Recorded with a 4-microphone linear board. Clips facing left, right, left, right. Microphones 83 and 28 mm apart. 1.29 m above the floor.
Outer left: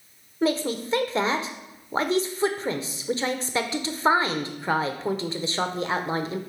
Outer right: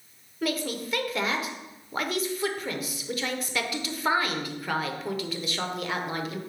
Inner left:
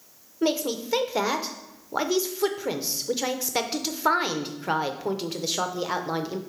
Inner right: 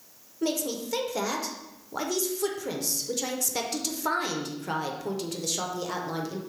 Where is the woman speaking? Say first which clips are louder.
Outer left 5 dB, inner left 4 dB; 30° left (ahead or behind), 0.7 m.